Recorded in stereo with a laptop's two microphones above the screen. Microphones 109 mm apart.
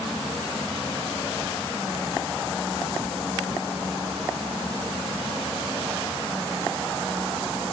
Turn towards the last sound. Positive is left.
turn(degrees=20)  # may be behind; listen again after turning